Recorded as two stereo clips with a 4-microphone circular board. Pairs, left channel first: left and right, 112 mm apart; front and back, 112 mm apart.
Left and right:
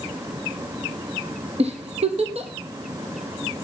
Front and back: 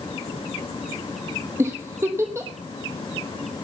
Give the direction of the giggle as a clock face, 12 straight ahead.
4 o'clock.